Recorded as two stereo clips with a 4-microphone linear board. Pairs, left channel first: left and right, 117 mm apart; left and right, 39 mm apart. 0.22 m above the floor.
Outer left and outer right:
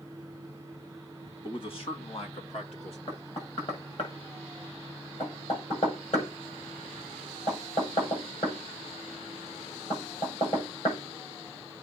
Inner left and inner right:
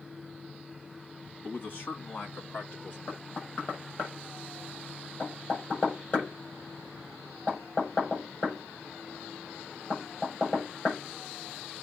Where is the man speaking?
45° left (ahead or behind), 2 m; by 3.0 s 60° left (ahead or behind), 3.5 m.